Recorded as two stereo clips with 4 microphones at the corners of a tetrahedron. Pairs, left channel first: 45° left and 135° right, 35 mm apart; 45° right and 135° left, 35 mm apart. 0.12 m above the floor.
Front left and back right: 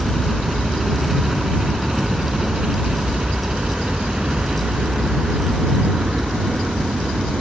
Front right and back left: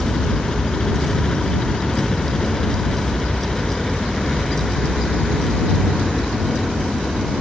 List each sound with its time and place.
0.0 s a helicopter: 55° right; by 7.4 s 130° right